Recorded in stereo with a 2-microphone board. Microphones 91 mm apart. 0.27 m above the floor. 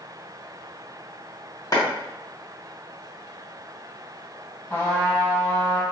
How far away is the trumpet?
About 1.3 m.